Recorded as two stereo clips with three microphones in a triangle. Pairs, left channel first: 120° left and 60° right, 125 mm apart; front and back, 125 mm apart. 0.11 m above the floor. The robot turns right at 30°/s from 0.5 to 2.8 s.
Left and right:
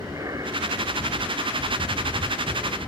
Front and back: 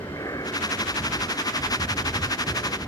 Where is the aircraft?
25° right; by 2.9 s 45° left.